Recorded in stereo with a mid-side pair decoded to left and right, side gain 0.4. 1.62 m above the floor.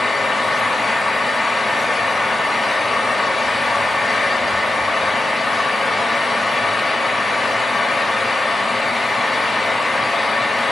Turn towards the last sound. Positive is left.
turn(degrees=20)